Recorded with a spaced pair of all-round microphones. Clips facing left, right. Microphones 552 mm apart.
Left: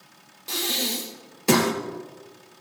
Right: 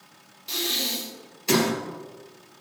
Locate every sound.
0.5 s breathing: 70° left (ahead or behind), 0.9 m